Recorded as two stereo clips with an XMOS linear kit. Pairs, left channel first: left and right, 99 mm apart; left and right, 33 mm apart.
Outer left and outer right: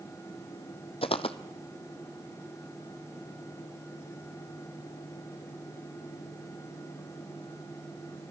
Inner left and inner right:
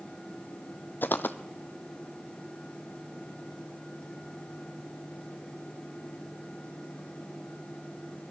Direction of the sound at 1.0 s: 70° left (ahead or behind).